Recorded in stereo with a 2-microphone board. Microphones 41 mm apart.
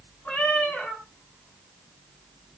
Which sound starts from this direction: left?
A cat meowing, at 0.2 s.